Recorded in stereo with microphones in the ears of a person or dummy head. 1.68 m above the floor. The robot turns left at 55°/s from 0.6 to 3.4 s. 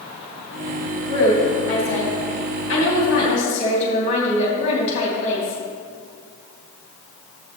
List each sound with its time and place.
1.1 s a woman speaking: 165° left, 3 m; by 5.6 s 40° left, 3 m